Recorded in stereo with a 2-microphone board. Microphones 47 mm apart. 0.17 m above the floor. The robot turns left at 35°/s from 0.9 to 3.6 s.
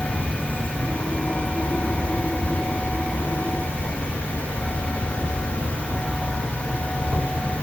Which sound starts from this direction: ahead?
An insect, at 0.0 s.